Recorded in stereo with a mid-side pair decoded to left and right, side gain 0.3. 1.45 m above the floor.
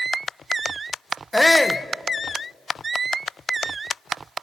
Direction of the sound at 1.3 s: 10° left.